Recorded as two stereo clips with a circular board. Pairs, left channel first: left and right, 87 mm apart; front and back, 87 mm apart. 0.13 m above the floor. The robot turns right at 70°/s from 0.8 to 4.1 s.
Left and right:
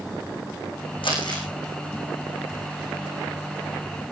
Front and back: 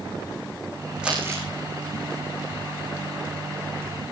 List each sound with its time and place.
1.0 s crumpling: 100° left, 6.5 m; by 1.4 s 130° left, 6.5 m